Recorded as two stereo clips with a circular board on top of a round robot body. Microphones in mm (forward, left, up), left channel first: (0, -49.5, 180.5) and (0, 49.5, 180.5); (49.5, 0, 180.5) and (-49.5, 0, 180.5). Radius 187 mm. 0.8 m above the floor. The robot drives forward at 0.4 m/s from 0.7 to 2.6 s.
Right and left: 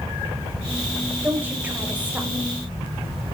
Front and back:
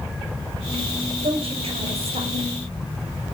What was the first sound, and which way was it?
A woman speaking, 165° left.